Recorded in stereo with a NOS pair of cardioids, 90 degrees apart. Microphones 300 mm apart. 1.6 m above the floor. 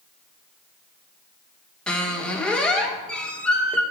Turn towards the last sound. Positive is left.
turn(degrees=5)